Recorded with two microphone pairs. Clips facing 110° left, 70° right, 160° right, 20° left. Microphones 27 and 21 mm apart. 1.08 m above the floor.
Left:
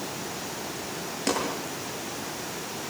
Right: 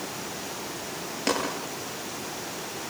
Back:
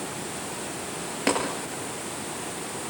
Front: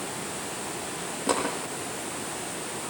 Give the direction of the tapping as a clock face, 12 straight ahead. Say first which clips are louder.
Right 1 dB, back 2 dB; 5 o'clock.